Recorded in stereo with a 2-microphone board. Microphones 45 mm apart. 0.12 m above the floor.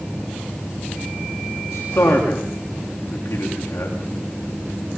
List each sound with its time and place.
1.7 s a man speaking: 80° left, 8.5 m